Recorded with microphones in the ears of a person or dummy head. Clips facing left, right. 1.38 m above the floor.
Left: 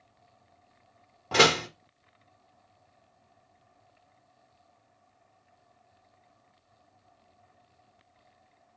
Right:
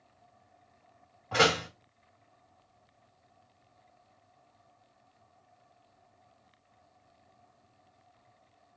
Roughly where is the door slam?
Left.